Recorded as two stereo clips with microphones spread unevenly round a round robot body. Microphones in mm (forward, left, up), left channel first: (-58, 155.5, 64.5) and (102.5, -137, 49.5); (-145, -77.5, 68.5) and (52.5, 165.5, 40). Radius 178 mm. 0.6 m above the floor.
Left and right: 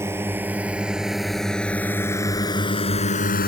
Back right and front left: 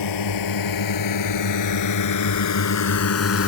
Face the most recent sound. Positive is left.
turn(degrees=-175)